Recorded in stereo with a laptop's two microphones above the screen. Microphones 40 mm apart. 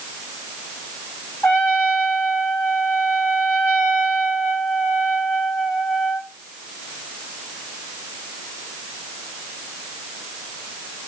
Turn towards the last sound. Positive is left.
turn(degrees=65)  # may be behind; listen again after turning